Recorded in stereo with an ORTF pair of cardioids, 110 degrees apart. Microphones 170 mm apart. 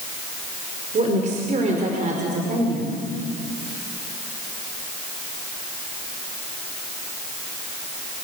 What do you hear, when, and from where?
0.9 s a woman speaking: 45° right, 5 m